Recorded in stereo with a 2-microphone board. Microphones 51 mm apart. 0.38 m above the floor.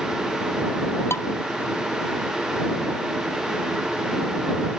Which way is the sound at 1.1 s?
60° left (ahead or behind).